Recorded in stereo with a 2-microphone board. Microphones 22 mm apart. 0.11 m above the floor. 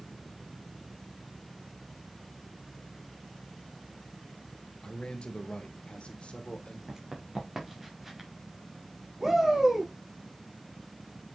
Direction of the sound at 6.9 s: 15° right (ahead or behind).